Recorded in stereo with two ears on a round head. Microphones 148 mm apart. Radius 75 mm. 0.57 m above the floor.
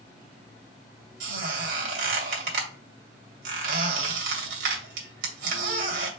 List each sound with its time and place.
1.2 s a squeak: 75° right (ahead or behind), 2 m